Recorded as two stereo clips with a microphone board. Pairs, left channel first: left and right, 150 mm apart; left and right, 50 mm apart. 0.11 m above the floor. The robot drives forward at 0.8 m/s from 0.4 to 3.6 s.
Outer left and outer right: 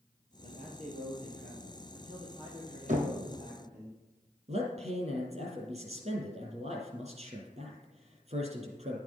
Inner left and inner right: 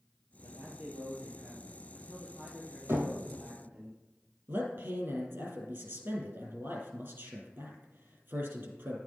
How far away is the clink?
No clink in this recording.